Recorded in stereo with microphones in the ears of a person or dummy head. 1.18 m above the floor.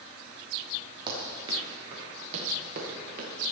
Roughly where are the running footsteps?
Right.